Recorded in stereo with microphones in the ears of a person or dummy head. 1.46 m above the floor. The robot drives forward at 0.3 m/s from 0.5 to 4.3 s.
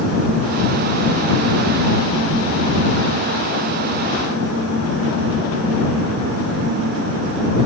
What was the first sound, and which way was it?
Only background noise.